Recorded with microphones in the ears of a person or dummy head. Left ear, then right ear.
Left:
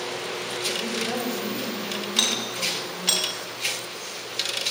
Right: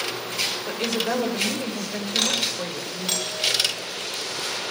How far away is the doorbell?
About 7.5 m.